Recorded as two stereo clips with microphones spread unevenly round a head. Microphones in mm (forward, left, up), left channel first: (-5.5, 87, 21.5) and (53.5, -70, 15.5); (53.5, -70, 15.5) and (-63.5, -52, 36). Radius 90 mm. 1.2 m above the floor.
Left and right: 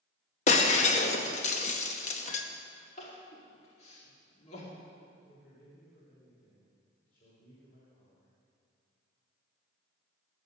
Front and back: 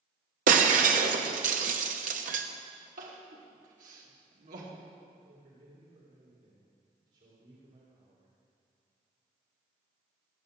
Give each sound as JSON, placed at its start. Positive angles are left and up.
{"t": 0.5, "sound": "breaking glass", "azimuth_deg": 165, "distance_m": 1.0}
{"t": 3.0, "sound": "crying", "azimuth_deg": 165, "distance_m": 2.0}
{"t": 5.1, "sound": "a man speaking", "azimuth_deg": 150, "distance_m": 3.5}